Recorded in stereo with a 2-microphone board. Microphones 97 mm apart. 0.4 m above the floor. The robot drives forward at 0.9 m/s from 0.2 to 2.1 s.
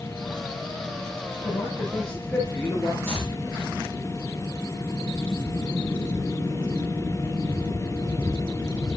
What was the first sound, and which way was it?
A man speaking, 10° left (ahead or behind).